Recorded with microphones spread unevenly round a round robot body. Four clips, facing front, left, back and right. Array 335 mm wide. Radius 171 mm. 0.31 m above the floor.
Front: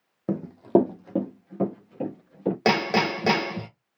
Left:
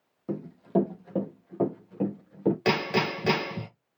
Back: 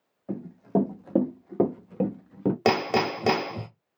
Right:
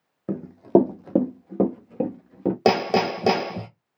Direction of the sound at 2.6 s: 115° right.